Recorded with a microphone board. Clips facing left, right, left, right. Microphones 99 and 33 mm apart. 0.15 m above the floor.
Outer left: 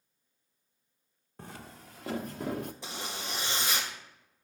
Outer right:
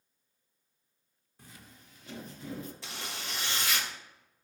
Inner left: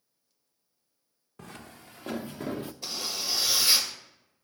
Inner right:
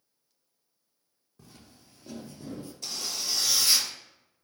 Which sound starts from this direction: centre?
A zipper, at 2.8 s.